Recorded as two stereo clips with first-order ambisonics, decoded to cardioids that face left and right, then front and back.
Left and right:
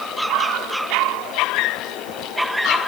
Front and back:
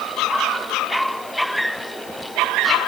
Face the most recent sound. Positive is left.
No sound to turn to.